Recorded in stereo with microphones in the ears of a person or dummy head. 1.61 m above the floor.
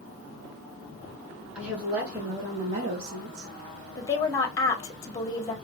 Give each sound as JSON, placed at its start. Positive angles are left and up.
{"t": 1.6, "sound": "a woman speaking", "side_deg": 10, "distance_m": 1.2}
{"t": 4.0, "sound": "a woman speaking", "side_deg": 30, "distance_m": 0.9}